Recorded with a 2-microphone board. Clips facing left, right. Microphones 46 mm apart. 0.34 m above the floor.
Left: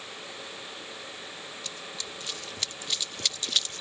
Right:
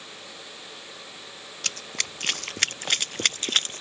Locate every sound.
1.6 s running footsteps: 70° right (ahead or behind); by 3.8 s 45° right (ahead or behind)